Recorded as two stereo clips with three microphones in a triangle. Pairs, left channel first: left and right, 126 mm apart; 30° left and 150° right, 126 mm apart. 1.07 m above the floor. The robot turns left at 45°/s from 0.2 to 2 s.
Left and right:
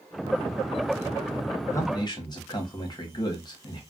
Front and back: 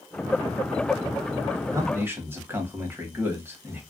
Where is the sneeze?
No sneeze in this recording.